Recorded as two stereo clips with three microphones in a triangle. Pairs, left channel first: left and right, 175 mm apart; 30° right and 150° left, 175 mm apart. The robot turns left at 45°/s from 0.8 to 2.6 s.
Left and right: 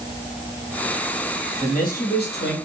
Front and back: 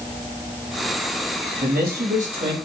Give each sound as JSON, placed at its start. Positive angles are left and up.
{"t": 1.6, "sound": "a man speaking", "azimuth_deg": 135, "distance_m": 3.5}